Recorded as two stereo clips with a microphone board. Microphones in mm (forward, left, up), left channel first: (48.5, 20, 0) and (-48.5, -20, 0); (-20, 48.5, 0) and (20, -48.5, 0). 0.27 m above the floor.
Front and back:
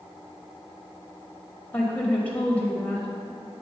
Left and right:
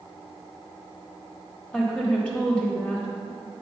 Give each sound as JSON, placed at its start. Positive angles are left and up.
{"t": 1.7, "sound": "a woman speaking", "azimuth_deg": 60, "distance_m": 1.1}